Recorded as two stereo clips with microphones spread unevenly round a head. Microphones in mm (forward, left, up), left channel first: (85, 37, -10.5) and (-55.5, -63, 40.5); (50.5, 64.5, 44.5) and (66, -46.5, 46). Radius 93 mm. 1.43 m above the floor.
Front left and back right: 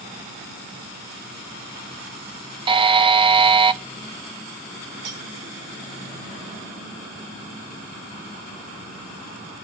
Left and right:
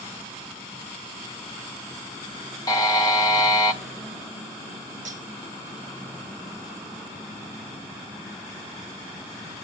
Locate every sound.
2.7 s a buzzer: 170° left, 0.7 m
5.0 s cutlery clinking: 125° right, 2 m